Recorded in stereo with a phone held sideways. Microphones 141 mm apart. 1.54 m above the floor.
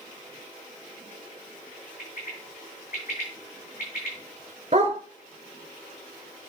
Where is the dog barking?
45° right (ahead or behind), 1.8 m.